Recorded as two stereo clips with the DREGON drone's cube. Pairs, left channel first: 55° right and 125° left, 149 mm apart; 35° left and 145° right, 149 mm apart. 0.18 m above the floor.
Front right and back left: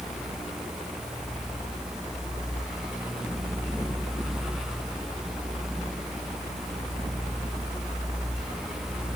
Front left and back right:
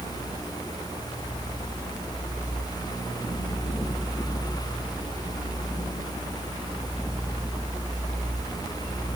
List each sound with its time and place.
Only background noise.